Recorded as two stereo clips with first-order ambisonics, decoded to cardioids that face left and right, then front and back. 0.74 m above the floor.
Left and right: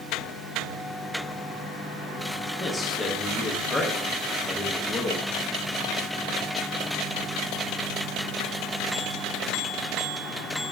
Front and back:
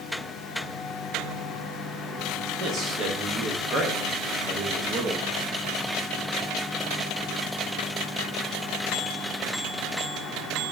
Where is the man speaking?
170° left, 0.6 m.